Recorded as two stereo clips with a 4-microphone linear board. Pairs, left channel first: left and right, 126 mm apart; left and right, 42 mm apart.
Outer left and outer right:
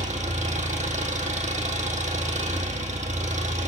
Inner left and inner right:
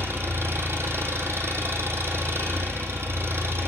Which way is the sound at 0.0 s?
80° right.